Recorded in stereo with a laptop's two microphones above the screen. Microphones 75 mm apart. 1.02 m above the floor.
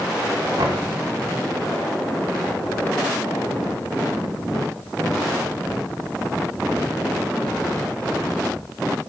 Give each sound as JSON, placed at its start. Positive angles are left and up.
{"t": 0.6, "sound": "knocking", "side_deg": -60, "distance_m": 2.5}